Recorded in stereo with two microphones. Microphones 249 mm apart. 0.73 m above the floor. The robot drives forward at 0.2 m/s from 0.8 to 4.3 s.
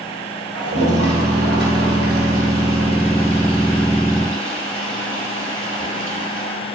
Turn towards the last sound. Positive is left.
turn(degrees=-50)  # may be behind; listen again after turning